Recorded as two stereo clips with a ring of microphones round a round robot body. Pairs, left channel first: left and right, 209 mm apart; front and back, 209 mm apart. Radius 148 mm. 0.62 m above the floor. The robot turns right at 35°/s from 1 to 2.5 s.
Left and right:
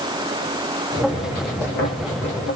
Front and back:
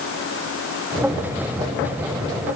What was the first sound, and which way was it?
Only background noise.